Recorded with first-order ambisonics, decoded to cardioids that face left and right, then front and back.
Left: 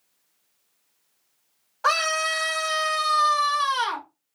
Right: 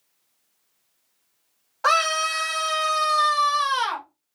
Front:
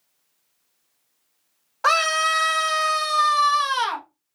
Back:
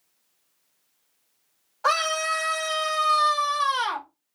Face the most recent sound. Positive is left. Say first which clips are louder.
# right 2 dB, front 4 dB
turn(degrees=-20)